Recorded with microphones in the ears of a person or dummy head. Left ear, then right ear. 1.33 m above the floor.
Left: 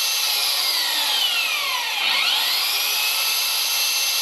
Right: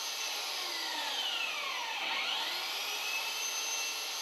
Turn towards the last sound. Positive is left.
turn(degrees=75)  # may be behind; listen again after turning